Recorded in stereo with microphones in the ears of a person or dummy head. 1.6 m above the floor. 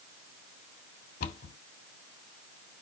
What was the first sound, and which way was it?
A cupboard door, 55° left (ahead or behind).